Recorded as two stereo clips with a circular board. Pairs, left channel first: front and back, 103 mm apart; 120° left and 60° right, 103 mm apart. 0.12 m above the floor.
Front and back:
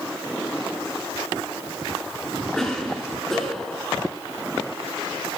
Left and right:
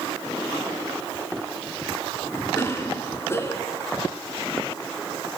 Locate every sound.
2.5 s a cough: 85° left, 1.7 m